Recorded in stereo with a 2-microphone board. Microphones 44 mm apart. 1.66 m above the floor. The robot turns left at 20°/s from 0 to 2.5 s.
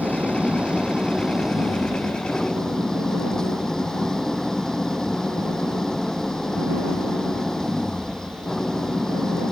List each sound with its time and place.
0.0 s an engine running: 140° right; by 9.5 s 170° left